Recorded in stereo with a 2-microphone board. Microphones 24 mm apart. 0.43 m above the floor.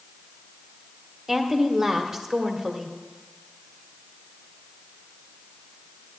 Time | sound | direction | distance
1.3 | a woman speaking | 25° right (ahead or behind) | 1.0 m